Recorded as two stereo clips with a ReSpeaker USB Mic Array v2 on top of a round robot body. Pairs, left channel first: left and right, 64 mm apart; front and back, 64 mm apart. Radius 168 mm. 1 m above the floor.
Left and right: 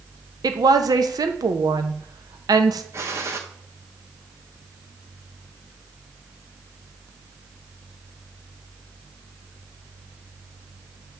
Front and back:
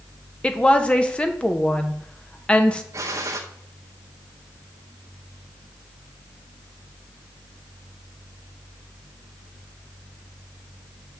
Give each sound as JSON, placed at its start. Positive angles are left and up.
{"t": 0.4, "sound": "a woman speaking", "azimuth_deg": -75, "distance_m": 1.1}
{"t": 2.9, "sound": "a gunshot", "azimuth_deg": -140, "distance_m": 0.7}